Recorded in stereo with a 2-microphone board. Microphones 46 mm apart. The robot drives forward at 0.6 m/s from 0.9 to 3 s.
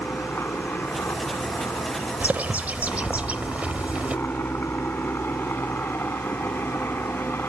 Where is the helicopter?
50° left (ahead or behind).